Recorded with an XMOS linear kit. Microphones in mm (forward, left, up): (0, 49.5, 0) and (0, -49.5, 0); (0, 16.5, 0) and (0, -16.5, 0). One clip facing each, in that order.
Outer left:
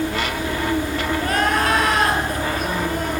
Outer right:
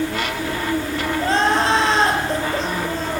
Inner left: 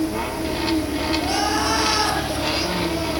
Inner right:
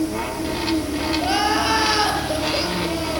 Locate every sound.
1.2 s crying: 25° right (ahead or behind), 4.5 m